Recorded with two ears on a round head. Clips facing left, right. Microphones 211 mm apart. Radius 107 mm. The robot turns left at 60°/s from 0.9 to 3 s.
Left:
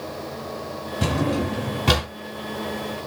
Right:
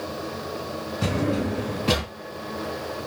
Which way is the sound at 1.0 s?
115° left.